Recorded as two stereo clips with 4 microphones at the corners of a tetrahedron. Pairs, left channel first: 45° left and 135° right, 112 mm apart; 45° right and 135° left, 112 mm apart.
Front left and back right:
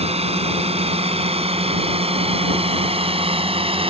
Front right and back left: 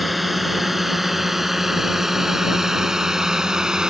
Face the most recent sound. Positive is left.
turn(degrees=-140)